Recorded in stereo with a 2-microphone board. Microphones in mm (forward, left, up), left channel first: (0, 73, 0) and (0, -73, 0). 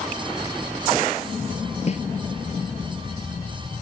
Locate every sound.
1.9 s a snare drum: 45° left (ahead or behind)